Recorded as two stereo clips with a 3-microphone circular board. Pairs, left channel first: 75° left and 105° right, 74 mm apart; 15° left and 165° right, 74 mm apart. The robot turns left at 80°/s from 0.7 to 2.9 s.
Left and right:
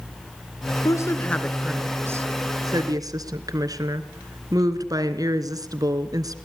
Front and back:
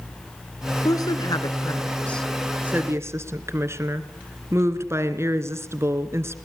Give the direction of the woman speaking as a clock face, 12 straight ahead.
10 o'clock.